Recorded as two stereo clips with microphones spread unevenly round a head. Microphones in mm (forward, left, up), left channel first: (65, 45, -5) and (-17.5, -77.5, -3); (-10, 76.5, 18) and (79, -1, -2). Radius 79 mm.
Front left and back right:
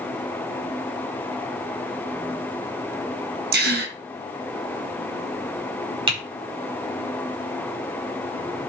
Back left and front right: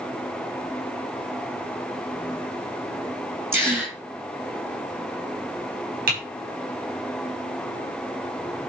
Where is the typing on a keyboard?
70° right, 5 m.